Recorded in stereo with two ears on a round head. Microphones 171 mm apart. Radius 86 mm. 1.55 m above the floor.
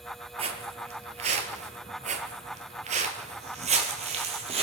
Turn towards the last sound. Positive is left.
turn(degrees=-30)  # may be behind; listen again after turning